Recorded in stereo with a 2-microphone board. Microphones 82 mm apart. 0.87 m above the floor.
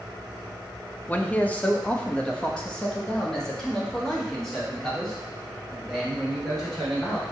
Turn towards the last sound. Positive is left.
turn(degrees=5)  # may be behind; listen again after turning